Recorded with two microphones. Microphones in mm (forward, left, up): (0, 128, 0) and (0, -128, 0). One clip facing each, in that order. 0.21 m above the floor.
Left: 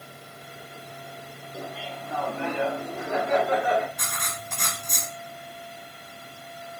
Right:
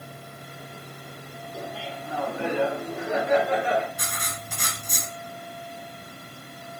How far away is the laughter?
About 2.0 m.